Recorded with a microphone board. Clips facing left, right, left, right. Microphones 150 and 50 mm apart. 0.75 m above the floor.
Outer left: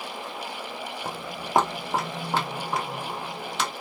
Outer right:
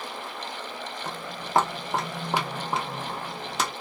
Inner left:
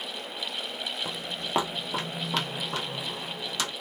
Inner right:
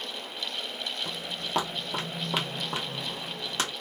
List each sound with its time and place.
1.1 s footsteps: 35° left (ahead or behind), 0.9 m; by 3.7 s 45° right (ahead or behind), 1.2 m